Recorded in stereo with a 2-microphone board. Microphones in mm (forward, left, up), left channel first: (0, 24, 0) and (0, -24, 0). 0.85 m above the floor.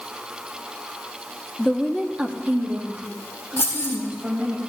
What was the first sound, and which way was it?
A woman speaking, 20° left (ahead or behind).